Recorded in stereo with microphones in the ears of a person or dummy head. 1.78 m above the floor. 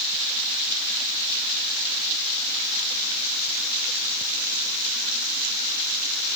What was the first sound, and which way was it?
Only background noise.